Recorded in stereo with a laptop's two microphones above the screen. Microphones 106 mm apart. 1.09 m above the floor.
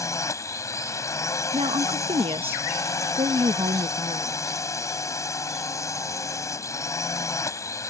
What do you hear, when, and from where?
0.0 s a drone: 30° left (ahead or behind)
1.5 s a woman speaking: 65° right (ahead or behind)